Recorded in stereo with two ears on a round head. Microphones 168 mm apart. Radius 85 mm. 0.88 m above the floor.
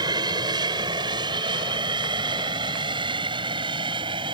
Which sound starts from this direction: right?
An aircraft, at 0.0 s.